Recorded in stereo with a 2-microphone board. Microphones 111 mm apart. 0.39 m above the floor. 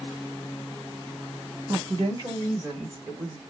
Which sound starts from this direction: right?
A woman speaking, at 1.7 s.